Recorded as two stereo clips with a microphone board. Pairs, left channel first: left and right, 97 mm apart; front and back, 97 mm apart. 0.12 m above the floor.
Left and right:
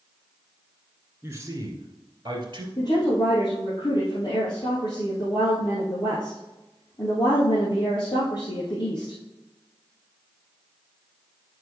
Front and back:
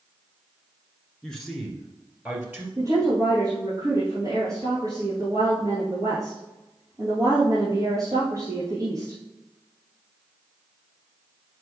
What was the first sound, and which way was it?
A man speaking, 65° right.